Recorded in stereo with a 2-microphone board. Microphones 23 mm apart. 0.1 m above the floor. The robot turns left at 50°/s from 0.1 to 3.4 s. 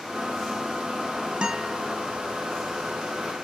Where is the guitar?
40° right (ahead or behind), 1.2 m; by 1.8 s 50° right (ahead or behind), 1.2 m.